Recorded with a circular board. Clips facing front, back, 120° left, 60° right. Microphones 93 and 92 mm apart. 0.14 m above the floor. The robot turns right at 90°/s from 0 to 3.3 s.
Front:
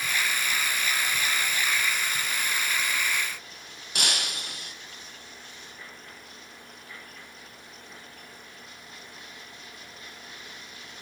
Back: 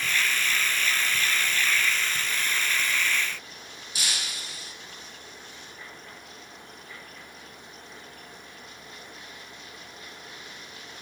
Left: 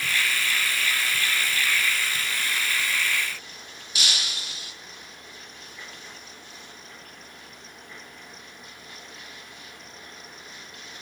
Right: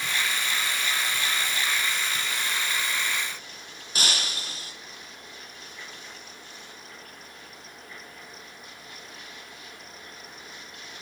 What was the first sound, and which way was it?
Breaking glass, 15° right.